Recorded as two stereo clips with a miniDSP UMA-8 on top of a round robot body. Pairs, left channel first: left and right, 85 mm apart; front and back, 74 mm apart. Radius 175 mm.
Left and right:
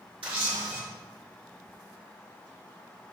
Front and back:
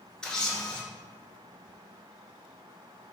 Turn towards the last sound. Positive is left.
turn(degrees=-80)